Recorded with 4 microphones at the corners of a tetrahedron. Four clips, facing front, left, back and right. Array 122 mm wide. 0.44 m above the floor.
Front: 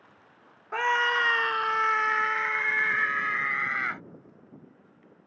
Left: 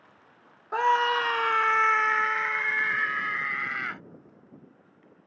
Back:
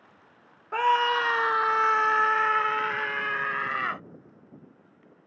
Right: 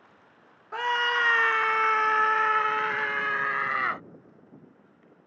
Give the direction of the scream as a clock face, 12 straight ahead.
9 o'clock.